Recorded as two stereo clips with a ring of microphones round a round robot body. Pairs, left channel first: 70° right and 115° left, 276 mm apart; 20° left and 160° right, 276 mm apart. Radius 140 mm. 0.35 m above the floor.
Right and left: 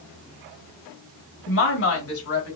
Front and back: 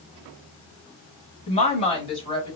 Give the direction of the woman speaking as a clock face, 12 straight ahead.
1 o'clock.